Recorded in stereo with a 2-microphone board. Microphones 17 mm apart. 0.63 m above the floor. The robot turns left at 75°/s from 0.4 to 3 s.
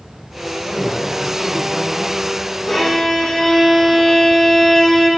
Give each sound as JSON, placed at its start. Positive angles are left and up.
{"t": 0.7, "sound": "a man speaking", "azimuth_deg": 110, "distance_m": 3.0}
{"t": 2.7, "sound": "a violin", "side_deg": 0, "distance_m": 9.0}